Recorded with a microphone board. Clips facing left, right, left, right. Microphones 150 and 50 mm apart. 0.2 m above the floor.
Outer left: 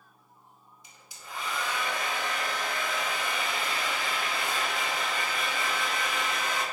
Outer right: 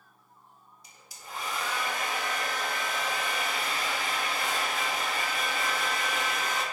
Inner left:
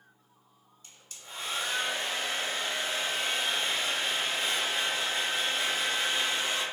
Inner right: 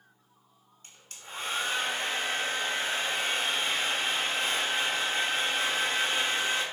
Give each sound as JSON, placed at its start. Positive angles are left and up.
{"t": 0.8, "sound": "a hair dryer", "side_deg": -45, "distance_m": 0.5}